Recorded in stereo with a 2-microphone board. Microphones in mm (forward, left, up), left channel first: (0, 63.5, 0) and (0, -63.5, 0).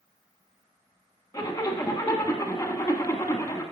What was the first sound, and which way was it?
A zipper, 30° left (ahead or behind).